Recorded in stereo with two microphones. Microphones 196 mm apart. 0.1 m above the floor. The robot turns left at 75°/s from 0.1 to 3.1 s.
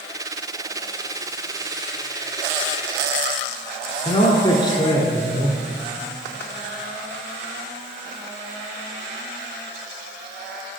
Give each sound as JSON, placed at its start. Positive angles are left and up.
{"t": 4.0, "sound": "a man speaking", "side_deg": 20, "distance_m": 1.3}